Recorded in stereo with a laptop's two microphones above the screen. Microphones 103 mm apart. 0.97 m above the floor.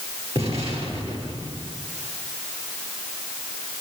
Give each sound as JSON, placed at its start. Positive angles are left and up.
{"t": 0.3, "sound": "an explosion", "side_deg": -75, "distance_m": 8.0}